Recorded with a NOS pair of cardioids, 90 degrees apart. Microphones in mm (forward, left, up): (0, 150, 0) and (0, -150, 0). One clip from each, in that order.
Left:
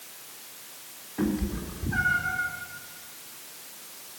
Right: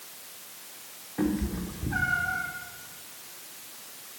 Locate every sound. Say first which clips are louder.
1.2 s a cat meowing: even; 10° right, 2.5 m